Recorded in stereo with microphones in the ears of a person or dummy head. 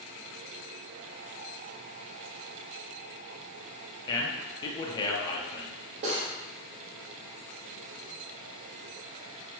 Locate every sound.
4.1 s a man speaking: 30° left (ahead or behind), 0.6 m
6.0 s cutlery clinking: 45° right (ahead or behind), 0.9 m